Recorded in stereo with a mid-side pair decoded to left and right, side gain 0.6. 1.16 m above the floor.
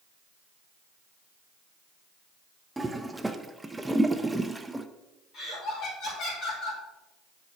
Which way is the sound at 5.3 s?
50° left.